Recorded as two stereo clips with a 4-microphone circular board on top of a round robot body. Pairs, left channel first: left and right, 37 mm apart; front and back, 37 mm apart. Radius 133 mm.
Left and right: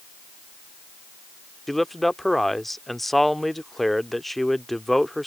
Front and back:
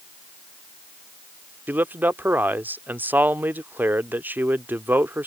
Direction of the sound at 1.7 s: Straight behind.